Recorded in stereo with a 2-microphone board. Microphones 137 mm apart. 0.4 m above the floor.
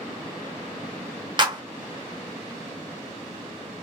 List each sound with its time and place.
1.4 s a clap: 35° right (ahead or behind), 0.7 m